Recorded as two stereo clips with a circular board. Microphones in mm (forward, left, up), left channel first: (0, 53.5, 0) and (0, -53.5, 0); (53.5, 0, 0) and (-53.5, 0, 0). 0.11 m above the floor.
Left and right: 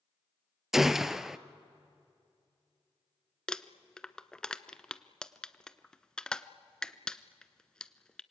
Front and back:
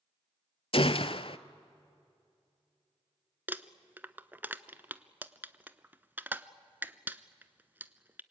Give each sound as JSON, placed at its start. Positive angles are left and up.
{"t": 0.7, "sound": "a gunshot", "azimuth_deg": -5, "distance_m": 0.6}
{"t": 3.5, "sound": "crumpling", "azimuth_deg": 155, "distance_m": 0.6}